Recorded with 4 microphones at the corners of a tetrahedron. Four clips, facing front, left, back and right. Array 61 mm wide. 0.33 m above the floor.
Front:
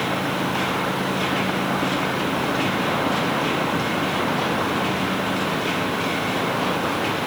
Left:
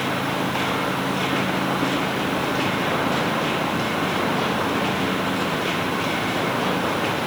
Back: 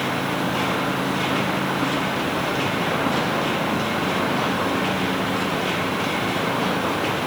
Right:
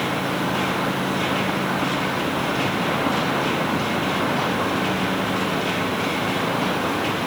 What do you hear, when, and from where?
Only background noise.